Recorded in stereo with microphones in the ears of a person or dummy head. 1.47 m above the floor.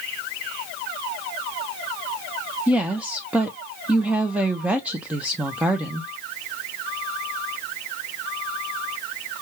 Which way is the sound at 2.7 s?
5° right (ahead or behind).